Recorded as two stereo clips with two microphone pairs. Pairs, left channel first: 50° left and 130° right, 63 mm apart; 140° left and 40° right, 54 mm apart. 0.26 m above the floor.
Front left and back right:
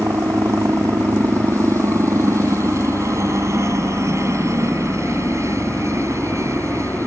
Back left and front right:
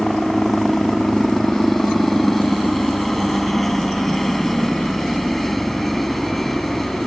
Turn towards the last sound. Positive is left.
turn(degrees=-130)